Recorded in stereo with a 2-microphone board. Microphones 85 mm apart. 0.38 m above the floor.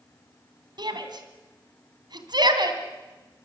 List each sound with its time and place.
0.8 s a shout: 60° right (ahead or behind), 2.5 m